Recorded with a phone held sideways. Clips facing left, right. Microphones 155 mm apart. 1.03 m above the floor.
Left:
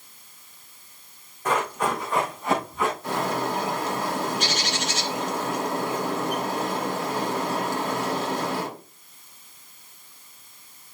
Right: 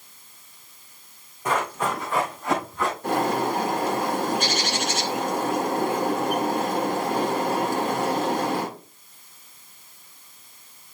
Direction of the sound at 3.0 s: 60° right (ahead or behind).